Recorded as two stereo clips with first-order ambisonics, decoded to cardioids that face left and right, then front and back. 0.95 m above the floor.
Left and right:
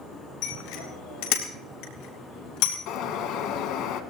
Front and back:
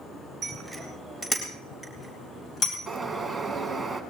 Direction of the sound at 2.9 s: 95° left.